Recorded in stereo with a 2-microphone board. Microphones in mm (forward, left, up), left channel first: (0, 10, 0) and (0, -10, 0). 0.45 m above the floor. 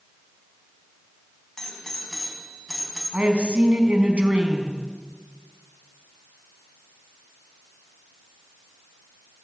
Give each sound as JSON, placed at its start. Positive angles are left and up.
{"t": 1.6, "sound": "a doorbell", "side_deg": 25, "distance_m": 5.0}
{"t": 3.1, "sound": "a woman speaking", "side_deg": -75, "distance_m": 4.5}